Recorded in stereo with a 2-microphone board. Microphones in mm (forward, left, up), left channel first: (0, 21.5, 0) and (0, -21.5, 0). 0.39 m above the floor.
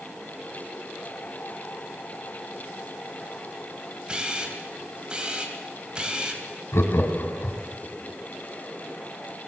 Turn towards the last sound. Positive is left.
turn(degrees=70)  # may be behind; listen again after turning